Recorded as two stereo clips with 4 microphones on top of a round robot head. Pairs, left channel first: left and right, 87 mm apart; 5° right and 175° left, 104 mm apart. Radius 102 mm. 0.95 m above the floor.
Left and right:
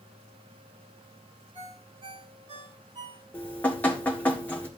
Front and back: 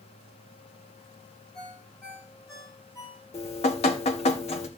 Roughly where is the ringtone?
Ahead right.